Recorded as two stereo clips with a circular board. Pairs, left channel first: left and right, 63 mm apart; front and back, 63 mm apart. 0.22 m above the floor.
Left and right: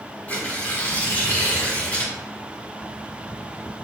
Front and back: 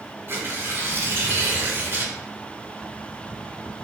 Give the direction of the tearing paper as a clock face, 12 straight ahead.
7 o'clock.